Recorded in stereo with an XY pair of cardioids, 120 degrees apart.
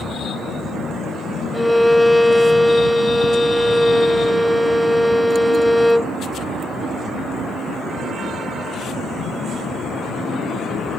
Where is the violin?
Straight ahead, 0.6 m.